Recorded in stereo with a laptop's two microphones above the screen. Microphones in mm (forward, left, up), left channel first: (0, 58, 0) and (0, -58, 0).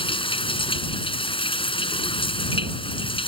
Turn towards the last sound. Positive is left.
turn(degrees=50)  # may be behind; listen again after turning